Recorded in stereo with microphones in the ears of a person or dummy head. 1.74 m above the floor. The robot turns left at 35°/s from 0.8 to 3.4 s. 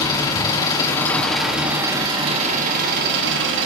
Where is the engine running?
25° left, 3 m; by 3.7 s 65° right, 3 m.